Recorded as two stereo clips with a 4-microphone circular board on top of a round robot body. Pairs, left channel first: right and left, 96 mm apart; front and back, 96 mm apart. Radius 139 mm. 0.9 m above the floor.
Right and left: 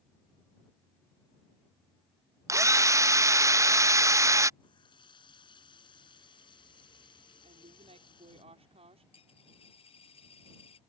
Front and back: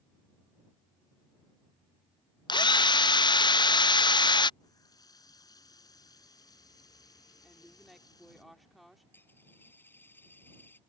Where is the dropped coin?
70° right.